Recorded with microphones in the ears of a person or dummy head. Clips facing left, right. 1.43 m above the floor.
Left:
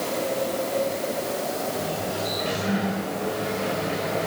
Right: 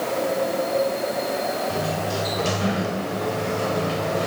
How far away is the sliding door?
About 6.5 m.